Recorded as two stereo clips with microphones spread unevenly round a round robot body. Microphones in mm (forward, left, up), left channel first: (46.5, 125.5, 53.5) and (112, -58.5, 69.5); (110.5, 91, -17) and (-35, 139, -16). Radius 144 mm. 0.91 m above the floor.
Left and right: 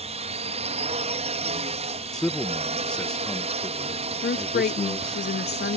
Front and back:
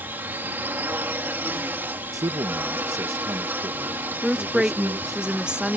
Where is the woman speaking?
75° left.